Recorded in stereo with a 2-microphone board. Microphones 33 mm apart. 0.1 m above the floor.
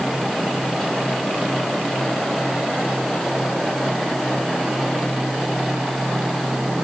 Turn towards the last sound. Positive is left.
No sound to turn to.